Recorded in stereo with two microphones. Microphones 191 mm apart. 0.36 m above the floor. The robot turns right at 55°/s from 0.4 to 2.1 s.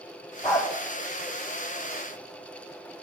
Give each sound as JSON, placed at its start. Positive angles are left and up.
{"t": 0.4, "sound": "a dog barking", "side_deg": 5, "distance_m": 4.0}